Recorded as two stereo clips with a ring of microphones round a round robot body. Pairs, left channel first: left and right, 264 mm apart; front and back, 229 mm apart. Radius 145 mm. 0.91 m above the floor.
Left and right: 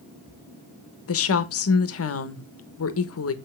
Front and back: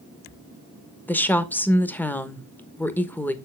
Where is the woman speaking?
80° left, 1.2 m.